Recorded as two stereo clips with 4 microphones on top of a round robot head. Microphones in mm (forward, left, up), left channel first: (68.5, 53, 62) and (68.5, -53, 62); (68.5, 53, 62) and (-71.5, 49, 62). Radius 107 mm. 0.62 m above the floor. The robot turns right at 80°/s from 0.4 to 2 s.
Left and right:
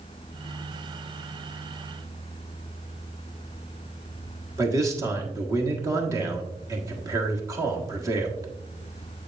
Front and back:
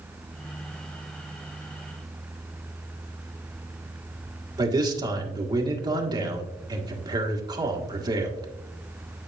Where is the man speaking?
135° right, 1.3 m.